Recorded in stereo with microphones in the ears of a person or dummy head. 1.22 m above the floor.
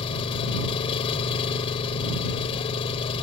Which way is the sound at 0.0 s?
30° left (ahead or behind).